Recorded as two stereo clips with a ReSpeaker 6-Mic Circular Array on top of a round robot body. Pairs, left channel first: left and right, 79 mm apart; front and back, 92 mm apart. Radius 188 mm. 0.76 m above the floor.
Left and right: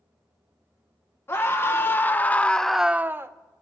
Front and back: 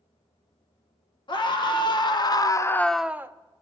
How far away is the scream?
About 1.5 m.